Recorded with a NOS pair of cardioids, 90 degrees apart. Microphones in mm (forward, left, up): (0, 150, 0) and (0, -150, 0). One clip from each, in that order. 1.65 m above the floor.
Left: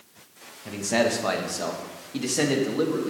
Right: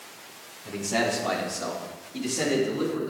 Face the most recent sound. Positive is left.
turn(degrees=60)